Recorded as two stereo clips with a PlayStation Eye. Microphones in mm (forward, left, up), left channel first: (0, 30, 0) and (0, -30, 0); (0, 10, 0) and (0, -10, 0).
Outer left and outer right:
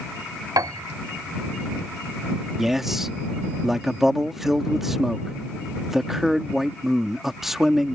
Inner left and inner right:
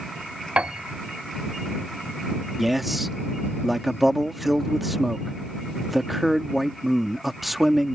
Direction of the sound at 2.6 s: 5° right (ahead or behind).